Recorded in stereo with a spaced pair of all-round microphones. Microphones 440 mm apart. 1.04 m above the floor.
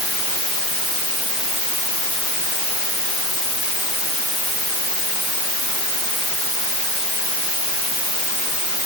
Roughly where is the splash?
I don't hear a splash.